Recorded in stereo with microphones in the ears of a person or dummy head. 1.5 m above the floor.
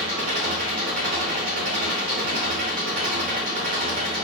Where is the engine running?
50° right (ahead or behind), 5.5 m.